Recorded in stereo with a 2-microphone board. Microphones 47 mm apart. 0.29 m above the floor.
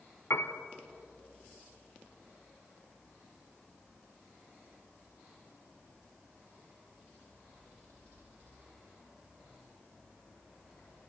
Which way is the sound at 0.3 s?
75° left (ahead or behind).